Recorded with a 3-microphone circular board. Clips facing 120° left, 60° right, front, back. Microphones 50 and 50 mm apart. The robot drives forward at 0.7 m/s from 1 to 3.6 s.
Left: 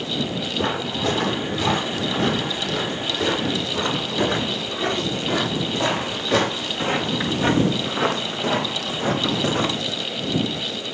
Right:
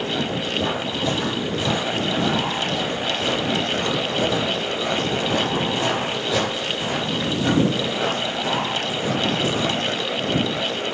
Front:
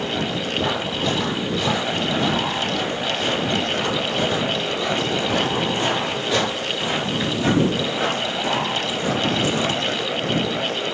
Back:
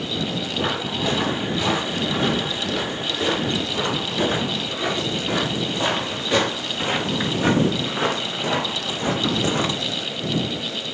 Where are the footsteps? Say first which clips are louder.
Left 2 dB, even; 105° left, 8 m; by 9.8 s 130° left, 3 m.